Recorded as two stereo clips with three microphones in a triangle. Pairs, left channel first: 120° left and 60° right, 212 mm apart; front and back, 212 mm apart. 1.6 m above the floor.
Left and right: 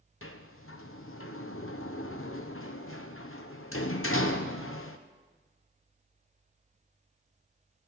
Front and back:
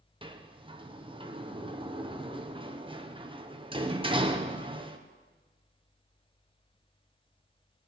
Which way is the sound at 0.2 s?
115° left.